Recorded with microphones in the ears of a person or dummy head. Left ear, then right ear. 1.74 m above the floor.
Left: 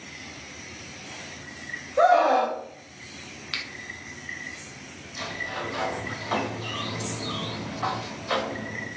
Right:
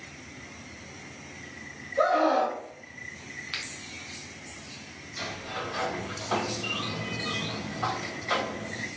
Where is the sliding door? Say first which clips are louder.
Left 3 dB; centre (ahead or behind), 1.9 m.